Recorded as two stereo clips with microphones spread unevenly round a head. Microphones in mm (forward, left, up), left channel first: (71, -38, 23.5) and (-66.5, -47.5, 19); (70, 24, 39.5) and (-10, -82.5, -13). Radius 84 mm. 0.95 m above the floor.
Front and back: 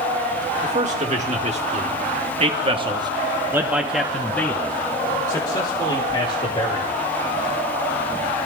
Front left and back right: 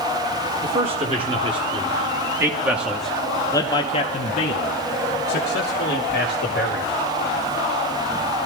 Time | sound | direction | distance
0.6 | a man speaking | 150° right | 1.8 m